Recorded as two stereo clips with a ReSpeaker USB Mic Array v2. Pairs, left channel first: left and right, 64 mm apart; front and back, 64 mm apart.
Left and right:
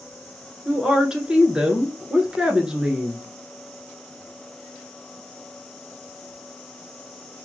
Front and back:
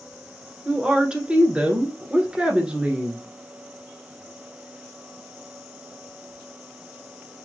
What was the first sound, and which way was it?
A woman speaking, 140° right.